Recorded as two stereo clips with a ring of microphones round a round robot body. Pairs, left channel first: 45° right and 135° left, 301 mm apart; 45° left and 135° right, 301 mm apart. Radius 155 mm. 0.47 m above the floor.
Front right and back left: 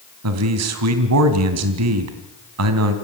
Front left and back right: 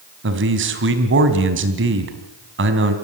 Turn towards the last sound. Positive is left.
turn(degrees=175)